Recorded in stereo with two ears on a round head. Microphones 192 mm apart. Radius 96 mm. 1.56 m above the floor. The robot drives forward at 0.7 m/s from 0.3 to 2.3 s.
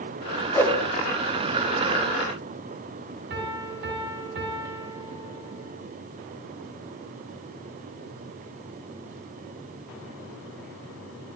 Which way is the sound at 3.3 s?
55° right (ahead or behind).